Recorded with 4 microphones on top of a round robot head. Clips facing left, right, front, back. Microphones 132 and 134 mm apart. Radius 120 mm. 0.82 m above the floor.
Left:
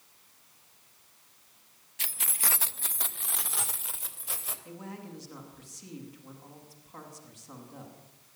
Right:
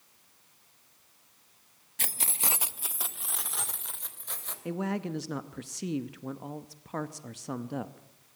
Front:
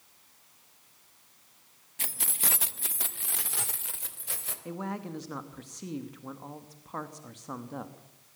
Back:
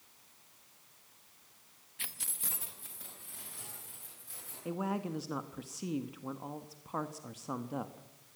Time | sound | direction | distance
2.0 | keys jangling | 50° right | 0.6 m
4.7 | a man speaking | 95° right | 0.9 m